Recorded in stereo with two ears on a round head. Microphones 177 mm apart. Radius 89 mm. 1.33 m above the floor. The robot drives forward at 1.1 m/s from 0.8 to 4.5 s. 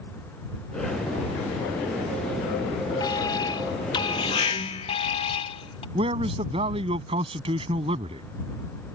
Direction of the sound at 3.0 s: 20° left (ahead or behind).